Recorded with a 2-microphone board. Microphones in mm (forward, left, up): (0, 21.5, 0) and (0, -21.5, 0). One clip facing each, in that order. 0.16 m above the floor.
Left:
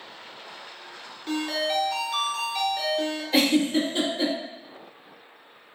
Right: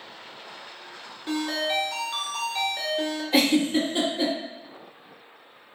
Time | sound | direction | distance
1.3 | a ringtone | 10° right (ahead or behind) | 1.0 m
3.3 | a giggle | 10° right (ahead or behind) | 1.6 m